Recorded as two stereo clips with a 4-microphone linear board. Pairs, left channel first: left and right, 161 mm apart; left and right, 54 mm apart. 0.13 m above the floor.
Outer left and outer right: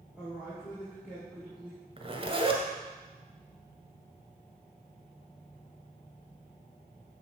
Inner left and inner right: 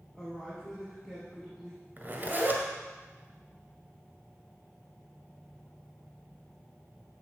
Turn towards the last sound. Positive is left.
turn(degrees=-35)  # may be behind; listen again after turning